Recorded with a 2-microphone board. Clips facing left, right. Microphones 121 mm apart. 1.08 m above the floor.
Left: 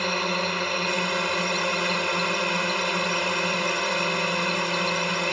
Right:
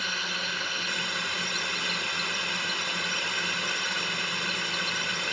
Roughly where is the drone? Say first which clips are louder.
Left 10 dB; left.